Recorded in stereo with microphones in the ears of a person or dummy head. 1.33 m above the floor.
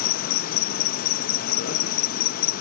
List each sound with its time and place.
0.0 s an insect: 45° left (ahead or behind)